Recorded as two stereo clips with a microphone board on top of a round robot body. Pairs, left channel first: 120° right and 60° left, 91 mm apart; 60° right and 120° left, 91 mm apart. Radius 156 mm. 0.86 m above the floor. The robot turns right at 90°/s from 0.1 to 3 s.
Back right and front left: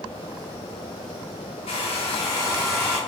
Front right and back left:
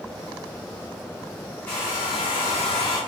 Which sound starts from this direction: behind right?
A hair dryer, at 1.7 s.